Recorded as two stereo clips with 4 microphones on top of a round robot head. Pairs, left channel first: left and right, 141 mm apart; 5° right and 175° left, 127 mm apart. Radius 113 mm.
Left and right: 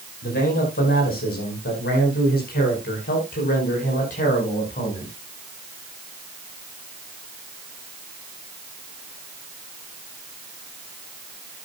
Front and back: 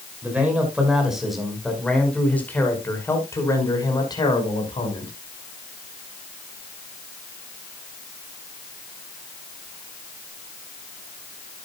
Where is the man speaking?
100° left, 6 m; by 5.1 s 40° left, 6 m.